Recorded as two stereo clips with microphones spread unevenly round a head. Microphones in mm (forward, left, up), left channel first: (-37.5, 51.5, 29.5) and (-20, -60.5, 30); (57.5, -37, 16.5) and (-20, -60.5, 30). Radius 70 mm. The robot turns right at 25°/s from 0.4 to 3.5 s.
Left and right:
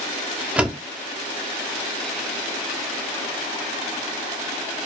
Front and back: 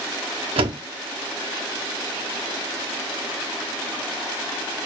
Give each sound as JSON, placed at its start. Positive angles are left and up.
{"t": 0.6, "sound": "a door slam", "azimuth_deg": -160, "distance_m": 1.3}